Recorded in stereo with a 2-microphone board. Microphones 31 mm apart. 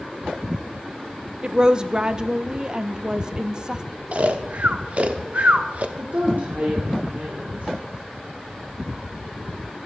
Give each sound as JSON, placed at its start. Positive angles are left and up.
{"t": 1.4, "sound": "a woman speaking", "side_deg": -25, "distance_m": 0.6}
{"t": 4.1, "sound": "snoring", "side_deg": -45, "distance_m": 0.8}
{"t": 6.0, "sound": "a woman speaking", "side_deg": -65, "distance_m": 2.5}